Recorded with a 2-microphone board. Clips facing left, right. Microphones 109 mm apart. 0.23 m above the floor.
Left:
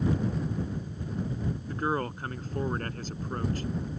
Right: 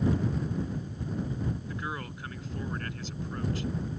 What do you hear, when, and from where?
1.7 s a man speaking: 45° left (ahead or behind)